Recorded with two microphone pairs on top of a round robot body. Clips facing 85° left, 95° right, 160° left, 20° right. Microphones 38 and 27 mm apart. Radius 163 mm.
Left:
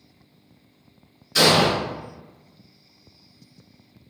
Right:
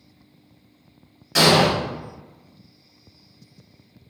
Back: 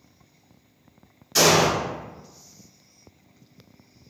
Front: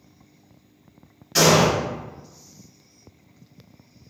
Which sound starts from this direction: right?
An explosion, at 1.4 s.